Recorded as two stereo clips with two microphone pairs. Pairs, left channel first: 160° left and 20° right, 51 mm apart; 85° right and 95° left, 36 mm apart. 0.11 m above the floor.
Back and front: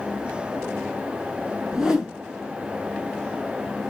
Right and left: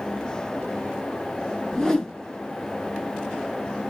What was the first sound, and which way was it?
A whoosh, 75° right.